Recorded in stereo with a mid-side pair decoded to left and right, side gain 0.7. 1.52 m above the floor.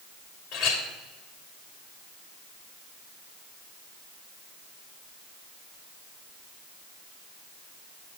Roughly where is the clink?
Ahead left.